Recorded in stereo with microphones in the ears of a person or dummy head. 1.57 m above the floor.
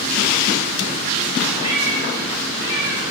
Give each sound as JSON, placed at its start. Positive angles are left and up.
{"t": 1.6, "sound": "a cat meowing", "side_deg": 45, "distance_m": 3.0}